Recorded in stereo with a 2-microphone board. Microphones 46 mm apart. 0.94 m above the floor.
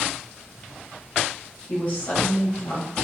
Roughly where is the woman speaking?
Left.